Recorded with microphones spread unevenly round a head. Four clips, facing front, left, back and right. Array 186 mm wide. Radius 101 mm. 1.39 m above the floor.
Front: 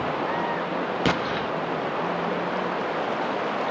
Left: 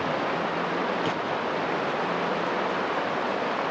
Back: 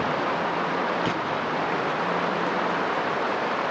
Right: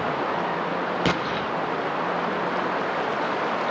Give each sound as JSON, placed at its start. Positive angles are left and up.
{"t": 1.1, "sound": "an explosion", "azimuth_deg": -50, "distance_m": 1.5}